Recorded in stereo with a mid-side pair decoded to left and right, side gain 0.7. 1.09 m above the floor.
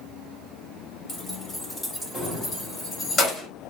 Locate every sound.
1.1 s keys jangling: 15° left, 5.5 m; by 3.5 s 25° left, 3.5 m